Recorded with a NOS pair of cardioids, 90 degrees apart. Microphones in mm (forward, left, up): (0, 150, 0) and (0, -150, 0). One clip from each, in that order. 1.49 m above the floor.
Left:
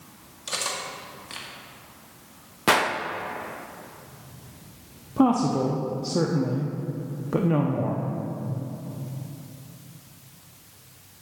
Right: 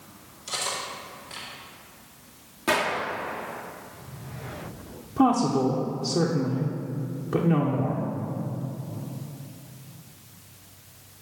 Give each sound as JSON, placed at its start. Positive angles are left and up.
{"t": 0.5, "sound": "cutlery clinking", "azimuth_deg": 45, "distance_m": 1.9}
{"t": 2.7, "sound": "a gunshot", "azimuth_deg": 40, "distance_m": 1.0}
{"t": 5.2, "sound": "a woman speaking", "azimuth_deg": 10, "distance_m": 0.8}